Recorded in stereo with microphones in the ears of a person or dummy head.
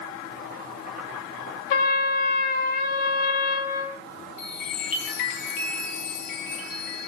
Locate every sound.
0.3 s boiling: 45° right (ahead or behind), 5 m
1.7 s a trumpet: 55° left (ahead or behind), 1.2 m
4.4 s a chime: 45° left (ahead or behind), 1.3 m